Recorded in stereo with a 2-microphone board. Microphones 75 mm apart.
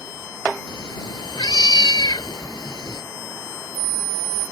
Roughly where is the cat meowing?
Left.